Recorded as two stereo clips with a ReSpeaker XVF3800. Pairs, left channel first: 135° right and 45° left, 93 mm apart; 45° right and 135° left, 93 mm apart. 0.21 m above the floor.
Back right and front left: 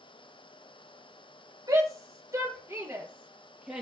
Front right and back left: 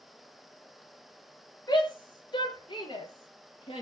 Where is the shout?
5° left, 4 m; by 3.8 s 30° right, 4 m.